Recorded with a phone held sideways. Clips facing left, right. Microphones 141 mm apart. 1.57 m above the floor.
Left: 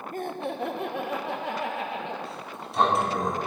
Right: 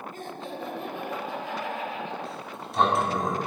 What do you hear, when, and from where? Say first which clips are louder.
0.1 s laughter: left 5 dB; 50° left (ahead or behind), 0.9 m; by 2.1 s 60° left (ahead or behind), 1.7 m
2.2 s a sliding door: even; centre (ahead or behind), 1.8 m